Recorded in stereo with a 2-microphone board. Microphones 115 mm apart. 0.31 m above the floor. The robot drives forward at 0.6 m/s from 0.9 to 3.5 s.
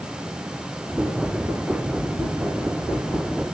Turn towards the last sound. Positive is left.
No sound to turn to.